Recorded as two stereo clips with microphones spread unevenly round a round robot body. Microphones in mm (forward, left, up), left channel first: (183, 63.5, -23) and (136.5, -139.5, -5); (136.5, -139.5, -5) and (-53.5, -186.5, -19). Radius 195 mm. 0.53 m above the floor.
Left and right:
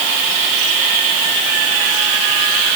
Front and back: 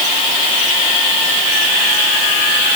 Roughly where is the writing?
I don't hear writing.